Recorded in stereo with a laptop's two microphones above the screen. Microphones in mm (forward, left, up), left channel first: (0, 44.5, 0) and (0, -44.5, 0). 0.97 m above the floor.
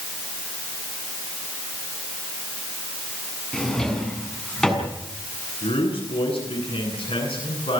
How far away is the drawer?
About 6.5 m.